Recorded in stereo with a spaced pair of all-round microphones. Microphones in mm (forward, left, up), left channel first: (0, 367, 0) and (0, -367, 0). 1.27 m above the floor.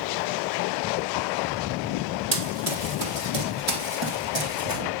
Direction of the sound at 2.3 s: 55° right (ahead or behind).